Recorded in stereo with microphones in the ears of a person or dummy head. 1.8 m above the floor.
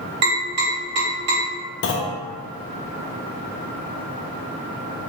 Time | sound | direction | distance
0.2 | tapping | 35° right (ahead or behind) | 1.8 m
1.8 | a clunk | 60° left (ahead or behind) | 0.5 m